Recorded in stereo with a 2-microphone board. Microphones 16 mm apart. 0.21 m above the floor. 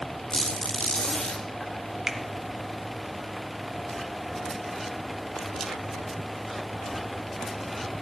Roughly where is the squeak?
Left.